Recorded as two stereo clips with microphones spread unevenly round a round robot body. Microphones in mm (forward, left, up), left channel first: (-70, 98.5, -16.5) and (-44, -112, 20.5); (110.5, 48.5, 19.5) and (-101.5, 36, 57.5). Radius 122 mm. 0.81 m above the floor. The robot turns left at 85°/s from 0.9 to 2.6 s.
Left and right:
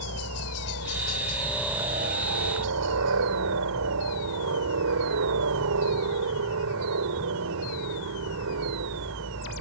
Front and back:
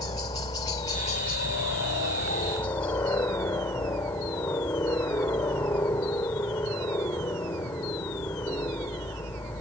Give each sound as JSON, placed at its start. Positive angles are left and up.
{"t": 0.0, "sound": "a helicopter", "azimuth_deg": 70}